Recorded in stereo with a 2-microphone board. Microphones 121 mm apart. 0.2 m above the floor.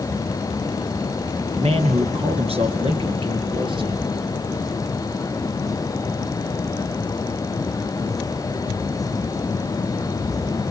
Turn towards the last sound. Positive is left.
turn(degrees=-40)  # may be behind; listen again after turning